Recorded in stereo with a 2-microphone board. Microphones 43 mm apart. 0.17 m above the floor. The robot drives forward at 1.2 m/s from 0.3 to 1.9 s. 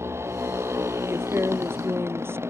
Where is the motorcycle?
90° right; by 2.5 s 85° right.